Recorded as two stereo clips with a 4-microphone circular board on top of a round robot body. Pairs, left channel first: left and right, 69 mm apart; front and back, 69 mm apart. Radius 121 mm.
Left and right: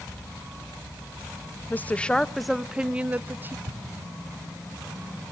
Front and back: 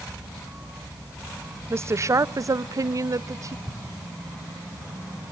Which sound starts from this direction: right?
An explosion, at 3.6 s.